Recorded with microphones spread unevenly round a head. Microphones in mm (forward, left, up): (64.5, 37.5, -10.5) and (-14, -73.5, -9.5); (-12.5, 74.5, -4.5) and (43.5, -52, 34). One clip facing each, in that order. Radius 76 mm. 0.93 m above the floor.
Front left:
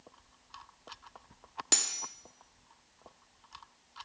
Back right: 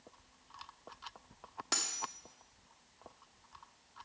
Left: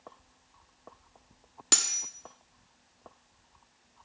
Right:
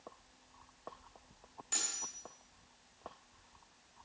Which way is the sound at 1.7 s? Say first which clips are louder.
Back right 1 dB, left 10 dB; 120° left.